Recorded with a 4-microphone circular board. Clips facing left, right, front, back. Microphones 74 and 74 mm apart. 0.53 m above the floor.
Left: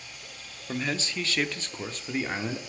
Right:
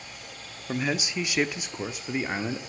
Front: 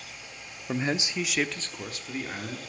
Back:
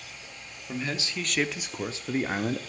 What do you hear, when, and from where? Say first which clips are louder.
0.7 s a man speaking: right 3 dB, front 4 dB; 25° right, 0.8 m; by 2.6 s 170° right, 1.0 m